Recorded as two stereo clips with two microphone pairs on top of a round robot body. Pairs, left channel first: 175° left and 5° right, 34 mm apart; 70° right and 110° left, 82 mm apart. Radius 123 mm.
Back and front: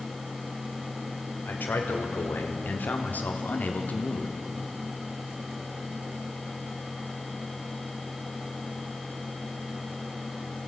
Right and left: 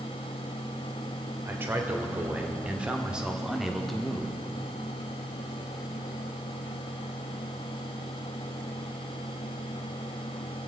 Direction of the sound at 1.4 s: 170° left.